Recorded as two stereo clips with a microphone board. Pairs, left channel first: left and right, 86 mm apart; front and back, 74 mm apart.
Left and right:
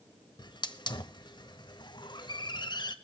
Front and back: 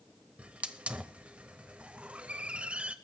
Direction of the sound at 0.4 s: 110° left.